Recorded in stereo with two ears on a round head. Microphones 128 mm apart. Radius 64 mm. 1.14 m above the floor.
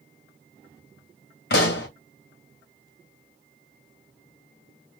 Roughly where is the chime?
I don't hear a chime.